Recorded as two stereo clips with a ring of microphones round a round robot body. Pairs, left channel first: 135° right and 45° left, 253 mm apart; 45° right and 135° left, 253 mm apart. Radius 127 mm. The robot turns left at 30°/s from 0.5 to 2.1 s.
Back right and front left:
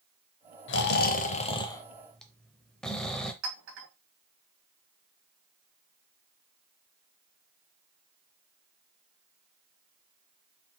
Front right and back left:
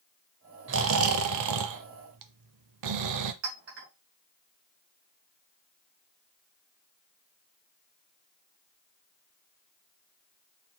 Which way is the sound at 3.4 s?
90° left.